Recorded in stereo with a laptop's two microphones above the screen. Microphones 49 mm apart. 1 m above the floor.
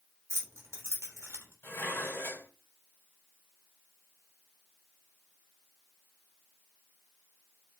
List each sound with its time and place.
0.3 s keys jangling: 70° right (ahead or behind), 1.1 m
1.6 s dishes clattering: 50° left (ahead or behind), 1.9 m